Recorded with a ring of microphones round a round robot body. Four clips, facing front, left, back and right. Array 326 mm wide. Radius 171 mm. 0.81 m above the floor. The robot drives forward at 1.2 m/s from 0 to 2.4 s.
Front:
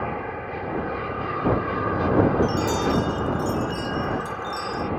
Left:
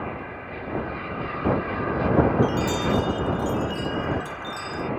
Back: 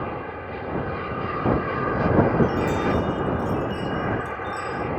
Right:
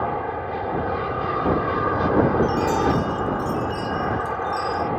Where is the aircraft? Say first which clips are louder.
Right 8 dB, front 2 dB; 85° right; by 5.0 s 95° right.